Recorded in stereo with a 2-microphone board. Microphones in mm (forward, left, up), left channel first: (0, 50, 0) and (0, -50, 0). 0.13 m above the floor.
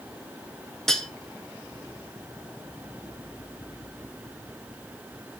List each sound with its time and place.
0.9 s cutlery clinking: 5° left (ahead or behind), 1.0 m